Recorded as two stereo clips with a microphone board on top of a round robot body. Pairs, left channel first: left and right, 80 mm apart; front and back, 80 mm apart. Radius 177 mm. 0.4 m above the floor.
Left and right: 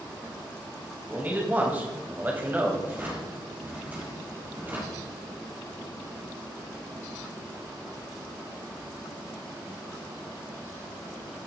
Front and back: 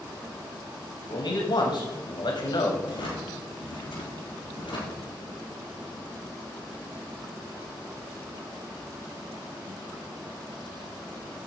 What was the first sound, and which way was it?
A man speaking, 20° right.